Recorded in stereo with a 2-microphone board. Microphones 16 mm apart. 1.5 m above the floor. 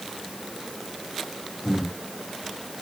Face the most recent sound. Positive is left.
turn(degrees=65)  # may be behind; listen again after turning